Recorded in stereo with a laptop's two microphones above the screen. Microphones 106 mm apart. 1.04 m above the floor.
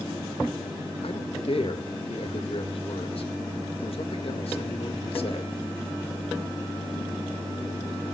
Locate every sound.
1.0 s a man speaking: 65° left (ahead or behind), 1.6 m